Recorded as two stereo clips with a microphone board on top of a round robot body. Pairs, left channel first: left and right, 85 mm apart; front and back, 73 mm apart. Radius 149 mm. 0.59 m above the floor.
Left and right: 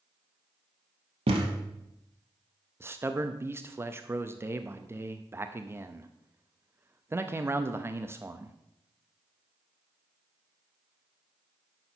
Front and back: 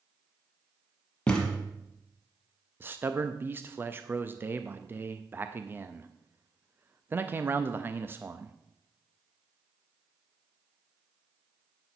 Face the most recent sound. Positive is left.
turn(degrees=-135)